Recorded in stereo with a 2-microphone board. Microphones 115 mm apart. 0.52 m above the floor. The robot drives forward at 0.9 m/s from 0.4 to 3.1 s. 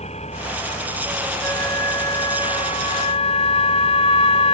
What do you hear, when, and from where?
0.0 s an engine running: 70° left (ahead or behind); by 4.5 s 65° left (ahead or behind)
1.4 s a flute: 30° left (ahead or behind); by 4.5 s 60° left (ahead or behind)